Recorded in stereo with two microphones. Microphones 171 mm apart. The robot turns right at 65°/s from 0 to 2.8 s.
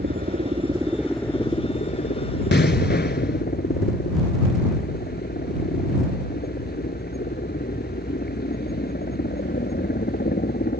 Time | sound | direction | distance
0.0 | a helicopter | 75° right | ?
2.5 | an explosion | 85° left | ?